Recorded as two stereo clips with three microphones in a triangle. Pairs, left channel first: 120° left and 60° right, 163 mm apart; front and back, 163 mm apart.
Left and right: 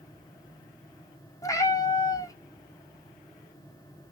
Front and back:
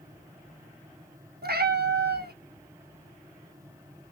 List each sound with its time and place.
1.4 s a cat meowing: 170° right, 0.8 m